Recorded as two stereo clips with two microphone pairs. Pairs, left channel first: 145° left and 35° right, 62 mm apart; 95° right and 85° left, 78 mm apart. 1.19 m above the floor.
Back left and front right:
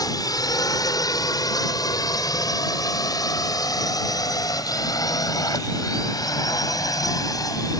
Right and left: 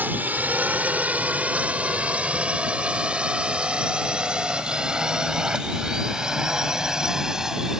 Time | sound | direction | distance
0.0 | a drone | 150° left | ?